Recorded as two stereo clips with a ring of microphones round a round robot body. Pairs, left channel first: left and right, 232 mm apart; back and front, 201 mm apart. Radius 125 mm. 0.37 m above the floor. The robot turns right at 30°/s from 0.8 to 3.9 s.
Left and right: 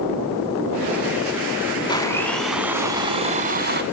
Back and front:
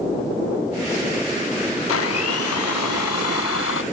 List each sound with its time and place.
1.9 s a blender: 165° left, 0.8 m; by 3.8 s 140° right, 0.8 m